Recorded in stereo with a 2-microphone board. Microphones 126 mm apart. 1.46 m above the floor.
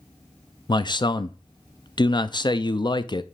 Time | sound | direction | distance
0.7 | a man speaking | 35° left (ahead or behind) | 0.5 m